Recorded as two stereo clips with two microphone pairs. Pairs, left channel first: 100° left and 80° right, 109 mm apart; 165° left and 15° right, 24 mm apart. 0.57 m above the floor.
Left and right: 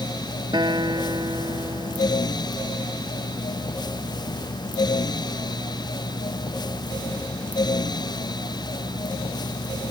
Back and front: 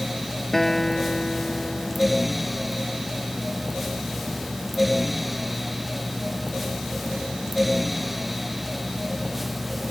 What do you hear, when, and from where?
0.5 s a guitar: 125° right